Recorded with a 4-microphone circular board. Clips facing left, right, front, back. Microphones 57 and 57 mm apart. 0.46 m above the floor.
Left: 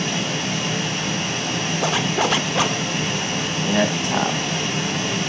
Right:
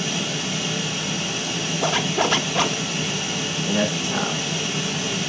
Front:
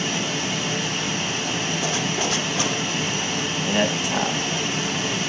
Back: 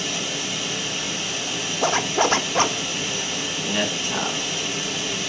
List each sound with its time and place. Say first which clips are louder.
0.0 s running water: left 2 dB, front 3 dB; 55° left, 2.5 m
1.8 s a zipper: even, back 9 dB; 175° left, 0.6 m
3.6 s a man speaking: left 3 dB, front 3 dB; 75° left, 3 m